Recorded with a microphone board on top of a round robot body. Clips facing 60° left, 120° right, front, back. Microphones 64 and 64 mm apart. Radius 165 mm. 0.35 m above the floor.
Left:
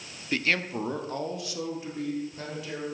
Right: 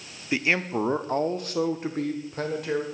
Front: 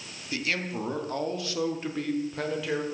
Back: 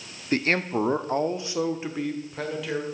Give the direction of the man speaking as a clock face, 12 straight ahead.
6 o'clock.